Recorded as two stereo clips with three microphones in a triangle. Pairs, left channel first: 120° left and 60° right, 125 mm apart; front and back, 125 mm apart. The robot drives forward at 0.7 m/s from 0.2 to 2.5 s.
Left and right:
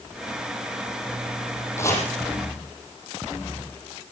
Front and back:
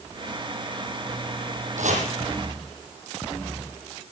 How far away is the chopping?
About 5 m.